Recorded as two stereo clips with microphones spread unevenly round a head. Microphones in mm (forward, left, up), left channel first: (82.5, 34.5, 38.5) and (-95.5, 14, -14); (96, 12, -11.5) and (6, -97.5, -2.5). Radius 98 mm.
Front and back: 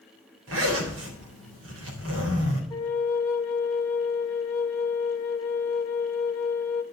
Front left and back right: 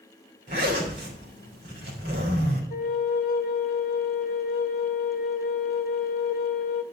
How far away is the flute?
About 1.2 m.